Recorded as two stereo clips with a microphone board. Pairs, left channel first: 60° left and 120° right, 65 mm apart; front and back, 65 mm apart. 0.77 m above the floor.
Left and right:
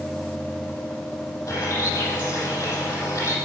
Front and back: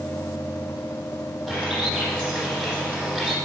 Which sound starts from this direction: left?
A bird, at 1.5 s.